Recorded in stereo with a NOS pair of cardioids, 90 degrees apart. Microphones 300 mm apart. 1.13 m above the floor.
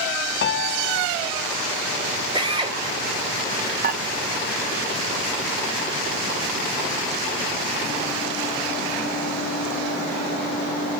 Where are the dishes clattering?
30° right, 1.0 m.